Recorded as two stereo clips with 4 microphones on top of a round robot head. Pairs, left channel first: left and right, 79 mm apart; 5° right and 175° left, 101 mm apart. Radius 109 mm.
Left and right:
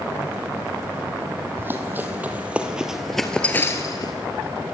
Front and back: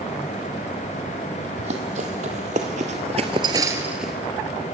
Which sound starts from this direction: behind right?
Running footsteps, at 1.6 s.